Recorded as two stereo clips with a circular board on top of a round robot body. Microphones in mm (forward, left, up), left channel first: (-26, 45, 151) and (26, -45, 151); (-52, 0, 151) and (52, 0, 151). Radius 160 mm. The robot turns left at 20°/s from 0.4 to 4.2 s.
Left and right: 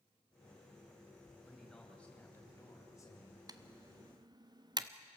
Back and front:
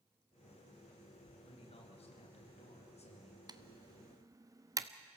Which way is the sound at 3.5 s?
25° right.